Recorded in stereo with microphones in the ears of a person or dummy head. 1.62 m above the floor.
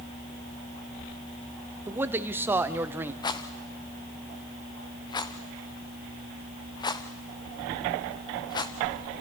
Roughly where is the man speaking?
Centre.